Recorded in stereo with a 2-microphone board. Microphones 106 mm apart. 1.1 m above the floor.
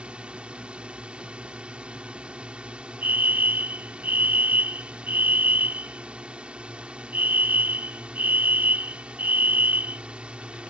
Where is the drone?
10° right (ahead or behind).